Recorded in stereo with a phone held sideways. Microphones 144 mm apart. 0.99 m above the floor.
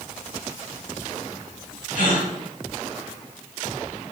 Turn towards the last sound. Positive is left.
turn(degrees=70)  # may be behind; listen again after turning